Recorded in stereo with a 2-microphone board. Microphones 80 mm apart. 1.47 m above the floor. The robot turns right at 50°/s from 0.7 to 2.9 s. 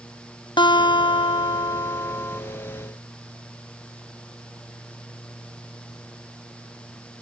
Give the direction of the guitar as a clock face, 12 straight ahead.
9 o'clock.